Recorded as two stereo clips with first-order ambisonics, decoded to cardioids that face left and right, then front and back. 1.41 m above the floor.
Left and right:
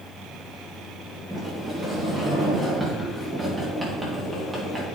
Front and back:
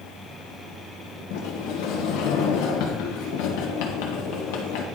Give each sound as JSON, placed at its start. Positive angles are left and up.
{"t": 1.3, "sound": "a sliding door", "azimuth_deg": -5, "distance_m": 1.8}